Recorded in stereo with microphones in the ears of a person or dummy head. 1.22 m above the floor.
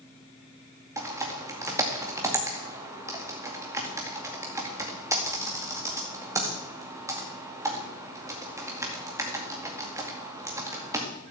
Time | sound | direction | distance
1.0 | typing on a keyboard | 20° right (ahead or behind) | 2 m